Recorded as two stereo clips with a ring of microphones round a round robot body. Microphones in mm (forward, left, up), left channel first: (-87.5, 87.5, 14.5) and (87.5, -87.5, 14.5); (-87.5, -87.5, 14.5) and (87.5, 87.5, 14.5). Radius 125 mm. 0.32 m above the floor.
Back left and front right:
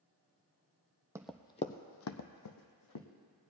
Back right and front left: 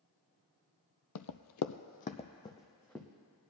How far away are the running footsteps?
About 0.6 m.